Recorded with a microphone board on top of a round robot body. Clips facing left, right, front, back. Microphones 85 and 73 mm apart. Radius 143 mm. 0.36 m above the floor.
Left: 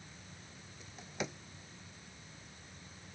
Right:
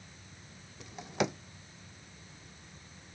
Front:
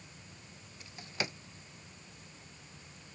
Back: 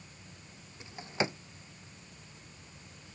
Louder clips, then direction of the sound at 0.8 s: Right 9 dB, back 6 dB; 115° right.